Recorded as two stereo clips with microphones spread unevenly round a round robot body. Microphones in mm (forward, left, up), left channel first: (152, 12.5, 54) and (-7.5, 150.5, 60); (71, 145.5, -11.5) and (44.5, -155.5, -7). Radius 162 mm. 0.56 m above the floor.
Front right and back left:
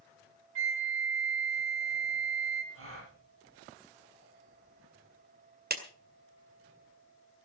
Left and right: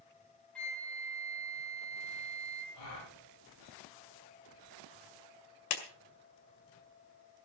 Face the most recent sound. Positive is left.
turn(degrees=95)